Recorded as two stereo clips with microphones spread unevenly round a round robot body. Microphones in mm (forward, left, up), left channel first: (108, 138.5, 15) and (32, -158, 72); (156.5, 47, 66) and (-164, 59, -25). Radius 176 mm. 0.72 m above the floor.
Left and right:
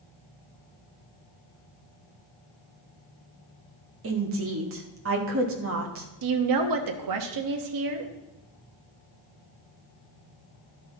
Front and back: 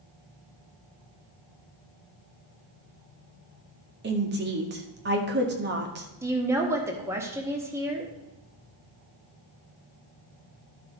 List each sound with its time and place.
4.0 s a woman speaking: 150° right, 1.4 m
6.2 s a woman speaking: 110° right, 1.1 m